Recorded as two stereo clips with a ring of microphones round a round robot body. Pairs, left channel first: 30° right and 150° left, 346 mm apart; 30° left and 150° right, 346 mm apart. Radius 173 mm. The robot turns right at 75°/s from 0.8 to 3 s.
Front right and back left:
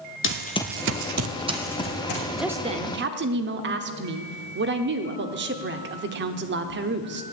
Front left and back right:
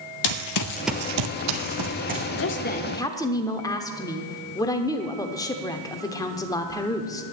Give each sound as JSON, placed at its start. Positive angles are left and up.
{"t": 0.2, "sound": "running footsteps", "azimuth_deg": 25, "distance_m": 1.0}
{"t": 2.3, "sound": "a woman speaking", "azimuth_deg": 55, "distance_m": 0.9}